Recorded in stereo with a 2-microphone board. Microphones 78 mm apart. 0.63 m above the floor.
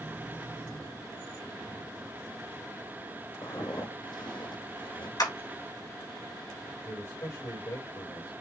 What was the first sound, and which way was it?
Footsteps, 65° left (ahead or behind).